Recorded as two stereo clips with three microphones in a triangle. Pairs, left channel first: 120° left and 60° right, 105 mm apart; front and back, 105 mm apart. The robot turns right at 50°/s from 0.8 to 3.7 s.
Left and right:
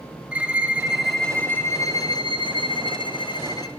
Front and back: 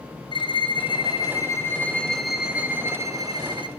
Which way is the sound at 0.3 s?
15° left.